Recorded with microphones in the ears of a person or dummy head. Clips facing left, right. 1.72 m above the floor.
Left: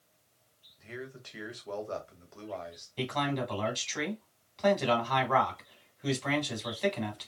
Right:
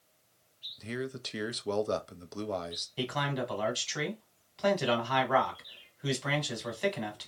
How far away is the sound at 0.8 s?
About 0.8 m.